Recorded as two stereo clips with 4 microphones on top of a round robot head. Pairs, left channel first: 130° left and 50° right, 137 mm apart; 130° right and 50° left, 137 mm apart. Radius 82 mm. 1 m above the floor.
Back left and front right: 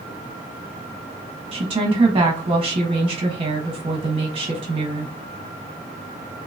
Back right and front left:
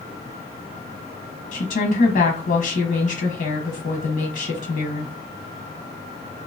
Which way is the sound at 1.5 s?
110° right.